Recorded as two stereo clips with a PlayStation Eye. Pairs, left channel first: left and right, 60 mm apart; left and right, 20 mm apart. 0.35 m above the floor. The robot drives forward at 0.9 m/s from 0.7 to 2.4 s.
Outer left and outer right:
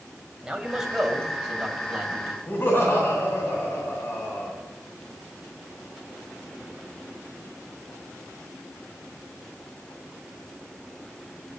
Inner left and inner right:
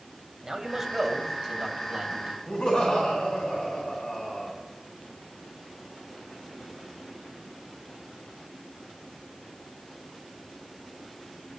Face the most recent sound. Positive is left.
turn(degrees=40)  # may be behind; listen again after turning